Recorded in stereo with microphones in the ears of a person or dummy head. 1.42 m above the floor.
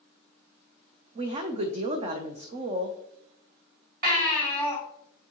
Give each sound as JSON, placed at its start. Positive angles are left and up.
{"t": 1.1, "sound": "a woman speaking", "side_deg": -35, "distance_m": 0.6}
{"t": 4.0, "sound": "a baby crying", "side_deg": -50, "distance_m": 3.0}